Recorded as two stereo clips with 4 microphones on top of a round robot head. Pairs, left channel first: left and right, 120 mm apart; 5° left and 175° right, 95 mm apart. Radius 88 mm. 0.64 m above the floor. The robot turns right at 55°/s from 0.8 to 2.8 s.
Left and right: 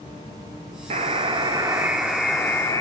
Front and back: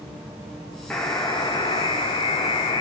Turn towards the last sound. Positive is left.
turn(degrees=30)